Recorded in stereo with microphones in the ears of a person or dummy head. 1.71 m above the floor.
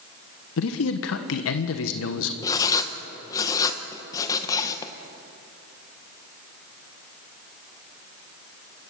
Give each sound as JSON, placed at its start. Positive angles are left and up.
{"t": 0.6, "sound": "a man speaking", "side_deg": 75, "distance_m": 1.3}
{"t": 2.4, "sound": "writing", "side_deg": 15, "distance_m": 1.2}